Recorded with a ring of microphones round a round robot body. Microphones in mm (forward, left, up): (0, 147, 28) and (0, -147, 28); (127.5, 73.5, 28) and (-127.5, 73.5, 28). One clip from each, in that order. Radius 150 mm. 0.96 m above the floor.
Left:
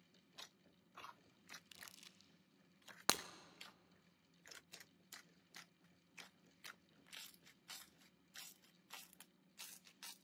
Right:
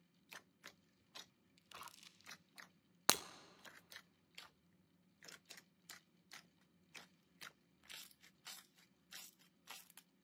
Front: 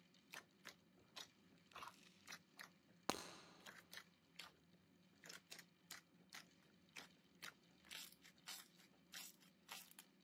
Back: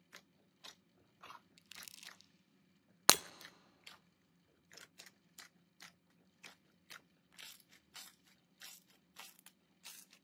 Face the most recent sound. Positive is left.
turn(degrees=-175)